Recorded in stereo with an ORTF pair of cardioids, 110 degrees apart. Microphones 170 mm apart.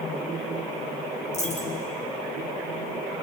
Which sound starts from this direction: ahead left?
A dropped coin, at 1.3 s.